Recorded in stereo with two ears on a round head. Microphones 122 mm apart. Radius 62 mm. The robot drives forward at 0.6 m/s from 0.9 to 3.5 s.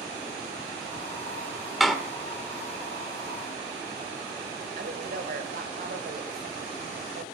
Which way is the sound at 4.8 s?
70° right (ahead or behind).